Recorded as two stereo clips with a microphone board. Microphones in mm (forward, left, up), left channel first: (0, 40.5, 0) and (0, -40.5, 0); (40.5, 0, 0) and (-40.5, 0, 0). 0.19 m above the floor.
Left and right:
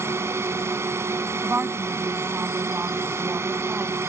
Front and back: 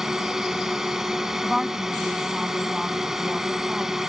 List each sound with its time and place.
0.0 s a drone: 100° right
1.4 s a woman speaking: 105° right